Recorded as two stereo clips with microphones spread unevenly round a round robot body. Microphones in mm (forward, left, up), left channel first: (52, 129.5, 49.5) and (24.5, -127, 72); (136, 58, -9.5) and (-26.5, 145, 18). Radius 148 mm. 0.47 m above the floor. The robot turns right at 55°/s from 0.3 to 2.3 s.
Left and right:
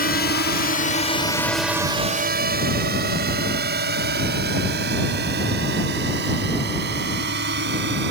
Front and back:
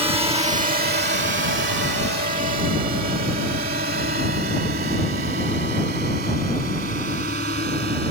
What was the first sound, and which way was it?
A drone, 100° left.